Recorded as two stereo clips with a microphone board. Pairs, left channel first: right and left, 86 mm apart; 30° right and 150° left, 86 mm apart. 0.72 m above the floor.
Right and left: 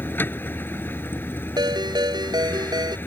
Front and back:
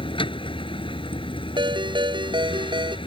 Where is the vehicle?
25° right.